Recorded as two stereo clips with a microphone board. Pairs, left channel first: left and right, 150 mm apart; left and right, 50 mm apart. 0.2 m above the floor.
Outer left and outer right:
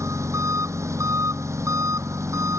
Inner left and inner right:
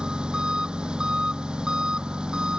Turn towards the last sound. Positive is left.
turn(degrees=-20)  # may be behind; listen again after turning